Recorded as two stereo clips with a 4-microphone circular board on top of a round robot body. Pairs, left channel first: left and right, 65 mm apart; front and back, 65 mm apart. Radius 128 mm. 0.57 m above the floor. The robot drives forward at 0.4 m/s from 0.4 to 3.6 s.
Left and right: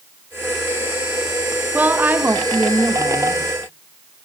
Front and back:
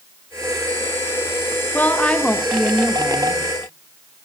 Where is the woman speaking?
45° right, 1.1 m; by 3.4 s 120° right, 1.0 m.